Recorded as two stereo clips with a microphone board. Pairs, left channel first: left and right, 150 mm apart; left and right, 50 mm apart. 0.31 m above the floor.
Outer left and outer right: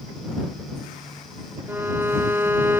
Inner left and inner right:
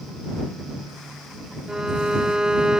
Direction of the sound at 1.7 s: 15° right (ahead or behind).